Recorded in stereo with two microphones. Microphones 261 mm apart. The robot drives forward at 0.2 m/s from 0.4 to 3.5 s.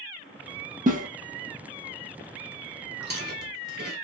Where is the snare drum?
30° right (ahead or behind), 0.5 m.